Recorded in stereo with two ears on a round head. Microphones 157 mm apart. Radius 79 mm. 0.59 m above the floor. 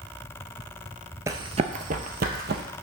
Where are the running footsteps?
15° right (ahead or behind), 0.5 m; by 2.6 s 65° right (ahead or behind), 1.2 m.